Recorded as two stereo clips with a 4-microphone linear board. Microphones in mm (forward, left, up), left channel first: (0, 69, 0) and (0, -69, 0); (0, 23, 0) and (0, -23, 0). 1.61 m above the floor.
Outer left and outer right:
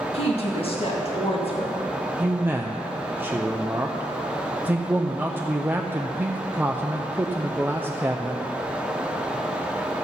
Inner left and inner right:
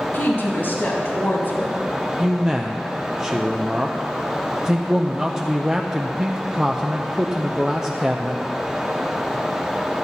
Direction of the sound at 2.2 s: 15° right (ahead or behind).